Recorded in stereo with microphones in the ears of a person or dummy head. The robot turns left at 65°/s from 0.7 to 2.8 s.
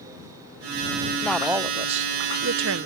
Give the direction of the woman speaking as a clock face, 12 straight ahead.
12 o'clock.